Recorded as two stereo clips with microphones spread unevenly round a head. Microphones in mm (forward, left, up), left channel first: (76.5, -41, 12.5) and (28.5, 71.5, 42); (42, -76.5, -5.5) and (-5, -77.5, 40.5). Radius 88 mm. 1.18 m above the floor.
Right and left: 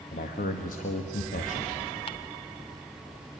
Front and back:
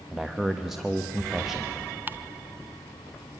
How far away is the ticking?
About 1.1 m.